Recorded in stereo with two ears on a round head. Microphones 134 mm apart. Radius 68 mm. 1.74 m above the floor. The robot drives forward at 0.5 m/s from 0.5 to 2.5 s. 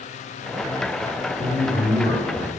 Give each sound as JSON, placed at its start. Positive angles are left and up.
{"t": 1.4, "sound": "a man speaking", "side_deg": -75, "distance_m": 1.9}